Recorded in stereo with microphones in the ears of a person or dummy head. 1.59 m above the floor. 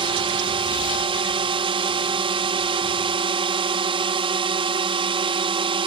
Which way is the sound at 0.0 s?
25° right (ahead or behind).